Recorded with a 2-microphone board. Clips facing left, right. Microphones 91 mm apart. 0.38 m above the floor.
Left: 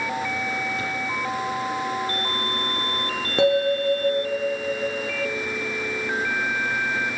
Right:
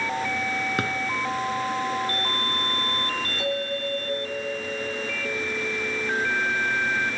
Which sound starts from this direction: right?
A drawer, at 0.8 s.